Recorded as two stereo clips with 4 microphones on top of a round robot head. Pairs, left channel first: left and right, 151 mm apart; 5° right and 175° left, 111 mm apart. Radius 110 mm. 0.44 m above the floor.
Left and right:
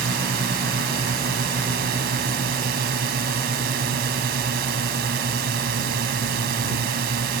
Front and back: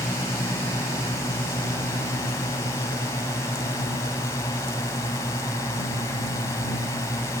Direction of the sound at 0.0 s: 70° right.